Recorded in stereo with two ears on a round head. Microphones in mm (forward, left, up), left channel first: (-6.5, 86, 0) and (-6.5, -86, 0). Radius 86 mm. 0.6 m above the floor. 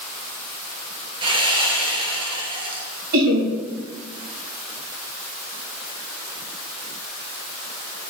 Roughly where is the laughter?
Right.